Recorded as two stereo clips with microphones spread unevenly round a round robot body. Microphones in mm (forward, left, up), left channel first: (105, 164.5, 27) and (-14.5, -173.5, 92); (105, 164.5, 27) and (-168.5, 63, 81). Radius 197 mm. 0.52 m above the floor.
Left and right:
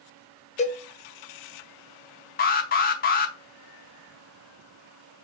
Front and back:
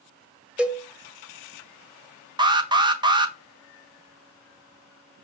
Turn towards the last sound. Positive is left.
turn(degrees=115)